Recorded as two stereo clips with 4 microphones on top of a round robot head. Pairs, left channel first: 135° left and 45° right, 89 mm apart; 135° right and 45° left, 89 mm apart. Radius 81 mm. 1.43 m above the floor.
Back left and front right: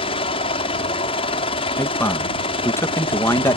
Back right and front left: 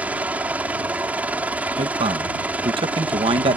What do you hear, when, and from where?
0.0 s a helicopter: 120° left
1.8 s a man speaking: 70° left